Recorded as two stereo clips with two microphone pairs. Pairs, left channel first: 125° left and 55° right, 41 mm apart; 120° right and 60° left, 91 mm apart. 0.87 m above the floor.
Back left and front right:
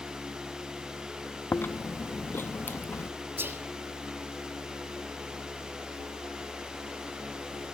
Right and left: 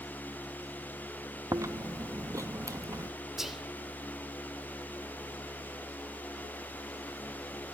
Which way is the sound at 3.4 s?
30° right.